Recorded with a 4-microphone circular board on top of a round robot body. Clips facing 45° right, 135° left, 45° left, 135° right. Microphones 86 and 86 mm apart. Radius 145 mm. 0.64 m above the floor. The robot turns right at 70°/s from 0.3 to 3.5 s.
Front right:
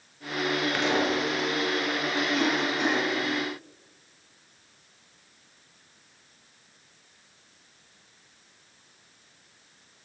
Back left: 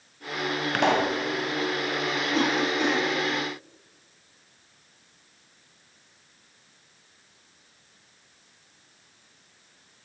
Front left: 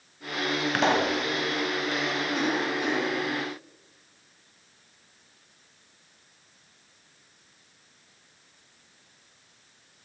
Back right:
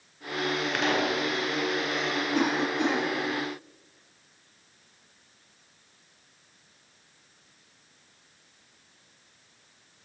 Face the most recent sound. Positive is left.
turn(degrees=-85)